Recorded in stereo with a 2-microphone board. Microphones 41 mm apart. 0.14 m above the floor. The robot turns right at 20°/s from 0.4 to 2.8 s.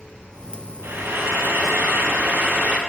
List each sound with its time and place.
0.8 s frying: 100° right, 2 m; by 2.8 s 60° right, 2 m